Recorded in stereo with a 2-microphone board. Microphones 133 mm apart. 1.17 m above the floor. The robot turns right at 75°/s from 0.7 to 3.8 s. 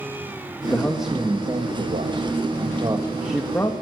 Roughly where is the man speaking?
Behind.